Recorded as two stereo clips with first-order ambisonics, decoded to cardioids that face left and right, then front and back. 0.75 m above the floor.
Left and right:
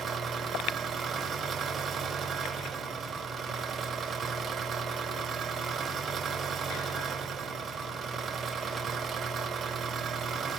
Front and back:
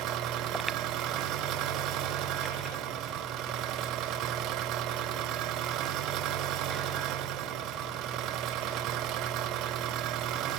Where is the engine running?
150° right, 0.8 m.